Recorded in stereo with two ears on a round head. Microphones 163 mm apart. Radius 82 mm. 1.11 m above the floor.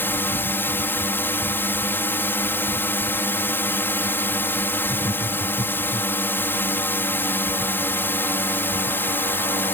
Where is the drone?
15° left (ahead or behind).